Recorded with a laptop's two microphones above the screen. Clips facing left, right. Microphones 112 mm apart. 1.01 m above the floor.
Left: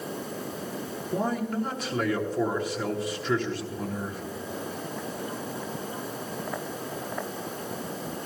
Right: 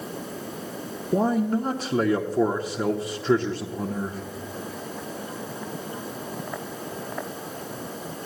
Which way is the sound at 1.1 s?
30° right (ahead or behind).